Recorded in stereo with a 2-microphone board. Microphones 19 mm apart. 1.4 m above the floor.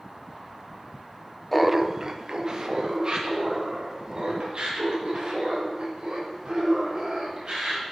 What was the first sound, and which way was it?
Laughter, 10° left (ahead or behind).